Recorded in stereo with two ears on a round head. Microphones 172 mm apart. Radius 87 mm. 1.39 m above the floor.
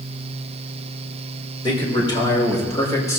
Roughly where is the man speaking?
Left.